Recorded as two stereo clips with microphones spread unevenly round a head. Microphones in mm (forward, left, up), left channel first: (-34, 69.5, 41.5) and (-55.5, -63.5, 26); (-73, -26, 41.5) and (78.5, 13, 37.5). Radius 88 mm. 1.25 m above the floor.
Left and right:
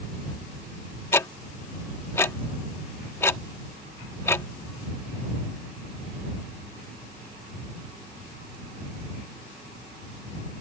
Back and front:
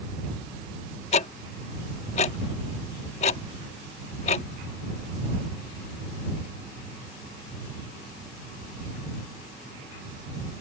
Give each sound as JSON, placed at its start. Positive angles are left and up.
{"t": 1.1, "sound": "ticking", "azimuth_deg": 145}